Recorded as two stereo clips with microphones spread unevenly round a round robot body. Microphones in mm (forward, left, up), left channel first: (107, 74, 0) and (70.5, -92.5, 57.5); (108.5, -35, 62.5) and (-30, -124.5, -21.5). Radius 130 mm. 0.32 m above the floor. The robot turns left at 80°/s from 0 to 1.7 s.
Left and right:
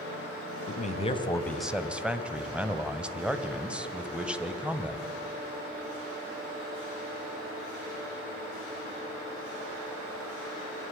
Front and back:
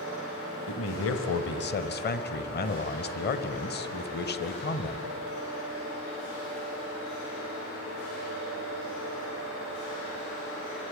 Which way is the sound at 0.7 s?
75° left.